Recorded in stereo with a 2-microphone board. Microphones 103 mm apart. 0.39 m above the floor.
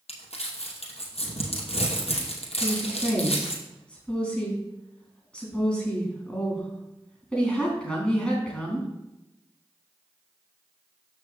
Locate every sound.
0.1 s crumpling: 85° left, 2.5 m
2.6 s a woman speaking: 10° left (ahead or behind), 3.5 m